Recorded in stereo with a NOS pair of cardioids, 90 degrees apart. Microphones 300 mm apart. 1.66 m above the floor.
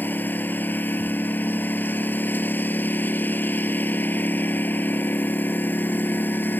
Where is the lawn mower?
5° left.